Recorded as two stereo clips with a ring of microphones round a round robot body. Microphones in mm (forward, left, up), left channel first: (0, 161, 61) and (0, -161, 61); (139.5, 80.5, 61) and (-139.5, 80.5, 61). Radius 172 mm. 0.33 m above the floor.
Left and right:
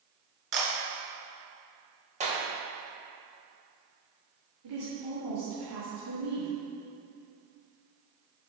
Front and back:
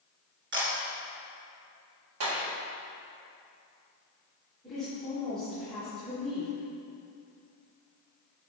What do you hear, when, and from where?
0.5 s a camera shutter: 120° right, 2.5 m
2.2 s a clap: 155° right, 1.4 m
4.6 s a woman speaking: 90° right, 2.5 m